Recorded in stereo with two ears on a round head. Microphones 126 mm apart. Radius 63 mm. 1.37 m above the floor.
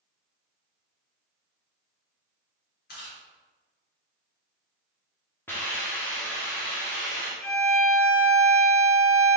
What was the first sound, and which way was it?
Chewing, 75° left (ahead or behind).